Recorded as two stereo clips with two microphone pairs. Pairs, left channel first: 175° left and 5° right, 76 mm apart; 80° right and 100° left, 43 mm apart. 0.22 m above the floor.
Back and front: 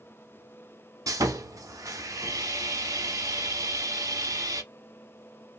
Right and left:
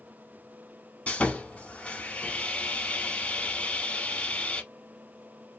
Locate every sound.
1.1 s sawing: 30° right, 0.8 m